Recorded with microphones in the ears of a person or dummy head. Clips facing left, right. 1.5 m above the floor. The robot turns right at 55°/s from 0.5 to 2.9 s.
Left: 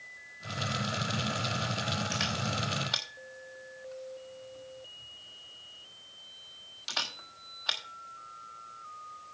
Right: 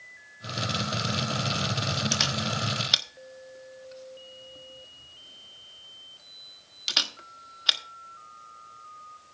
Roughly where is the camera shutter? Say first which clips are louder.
Right 3 dB; right.